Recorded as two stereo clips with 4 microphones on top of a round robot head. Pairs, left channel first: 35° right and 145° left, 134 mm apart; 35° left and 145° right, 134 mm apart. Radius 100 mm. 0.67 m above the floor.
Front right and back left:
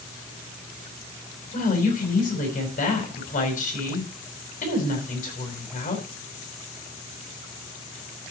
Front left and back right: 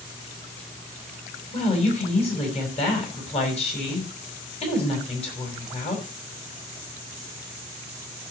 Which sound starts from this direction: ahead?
A woman speaking, at 1.5 s.